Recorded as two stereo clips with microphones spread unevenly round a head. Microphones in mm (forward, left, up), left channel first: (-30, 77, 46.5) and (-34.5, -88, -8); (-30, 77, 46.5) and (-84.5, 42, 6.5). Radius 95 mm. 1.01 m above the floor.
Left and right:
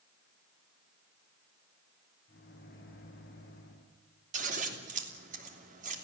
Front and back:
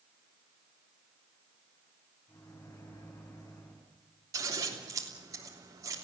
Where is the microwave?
45° left, 7 m.